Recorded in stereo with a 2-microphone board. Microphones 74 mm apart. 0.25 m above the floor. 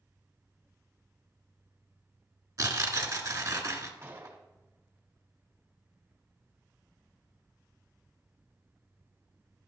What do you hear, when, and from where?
2.6 s tearing paper: 50° right (ahead or behind), 1.1 m
4.0 s a gunshot: 35° right (ahead or behind), 1.5 m